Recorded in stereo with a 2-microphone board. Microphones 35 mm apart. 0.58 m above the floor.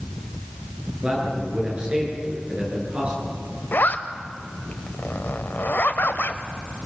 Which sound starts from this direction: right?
A man speaking, at 1.0 s.